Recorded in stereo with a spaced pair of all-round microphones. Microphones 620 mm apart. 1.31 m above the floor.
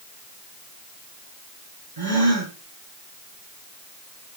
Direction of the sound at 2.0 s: 70° right (ahead or behind).